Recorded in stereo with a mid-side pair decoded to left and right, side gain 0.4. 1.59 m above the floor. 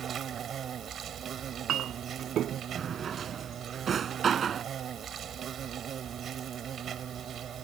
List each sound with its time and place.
0.0 s an insect: 60° right
1.4 s a clink: 70° right
2.8 s a drawer: 50° right